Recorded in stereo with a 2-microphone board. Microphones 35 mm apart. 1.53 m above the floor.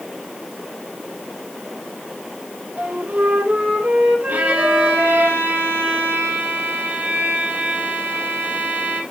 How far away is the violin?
About 4 m.